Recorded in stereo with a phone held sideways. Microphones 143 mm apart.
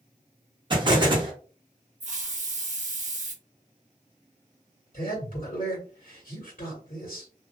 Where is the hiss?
60° right (ahead or behind), 0.6 m.